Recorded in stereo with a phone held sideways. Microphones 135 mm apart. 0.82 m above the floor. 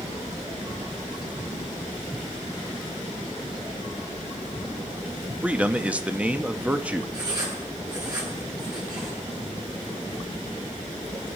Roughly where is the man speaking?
Centre.